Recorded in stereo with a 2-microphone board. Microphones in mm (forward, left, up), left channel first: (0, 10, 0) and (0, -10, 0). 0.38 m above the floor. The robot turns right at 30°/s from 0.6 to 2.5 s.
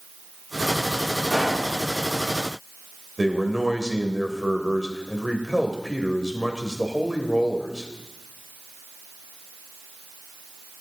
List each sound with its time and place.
1.3 s a pop: 10° right (ahead or behind), 5.5 m; by 1.7 s 25° right (ahead or behind), 5.5 m
3.2 s a man speaking: 20° right (ahead or behind), 1.4 m